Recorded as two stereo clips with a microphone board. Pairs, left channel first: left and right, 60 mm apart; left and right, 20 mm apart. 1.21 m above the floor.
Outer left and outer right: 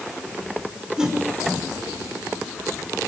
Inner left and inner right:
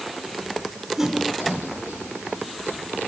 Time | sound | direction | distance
1.0 | a whoosh | 15° right (ahead or behind) | 5 m